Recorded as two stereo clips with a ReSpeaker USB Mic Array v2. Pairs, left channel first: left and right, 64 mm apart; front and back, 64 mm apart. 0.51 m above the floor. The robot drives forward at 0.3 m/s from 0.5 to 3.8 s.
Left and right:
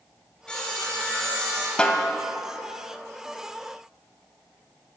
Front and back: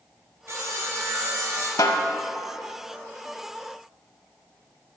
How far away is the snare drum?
About 0.5 m.